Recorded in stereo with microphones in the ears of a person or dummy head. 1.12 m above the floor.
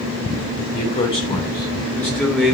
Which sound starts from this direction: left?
A man speaking, at 0.7 s.